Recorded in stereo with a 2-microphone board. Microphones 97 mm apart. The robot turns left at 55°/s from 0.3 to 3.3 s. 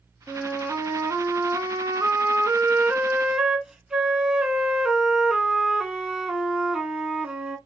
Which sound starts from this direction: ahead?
A flute, at 0.3 s.